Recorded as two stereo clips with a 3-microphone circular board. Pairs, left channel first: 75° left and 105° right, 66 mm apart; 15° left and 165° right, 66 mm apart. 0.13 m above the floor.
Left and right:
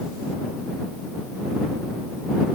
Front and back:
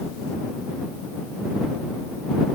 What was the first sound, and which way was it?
Only background noise.